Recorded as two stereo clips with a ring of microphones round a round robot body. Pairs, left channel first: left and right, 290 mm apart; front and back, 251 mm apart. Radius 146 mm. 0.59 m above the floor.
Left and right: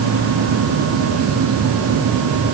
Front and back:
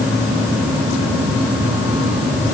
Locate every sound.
Only background noise.